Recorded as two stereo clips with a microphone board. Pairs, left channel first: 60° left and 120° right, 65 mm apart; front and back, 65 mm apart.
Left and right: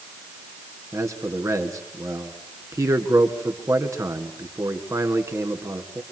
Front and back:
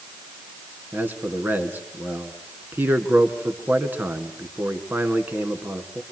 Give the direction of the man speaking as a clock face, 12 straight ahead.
4 o'clock.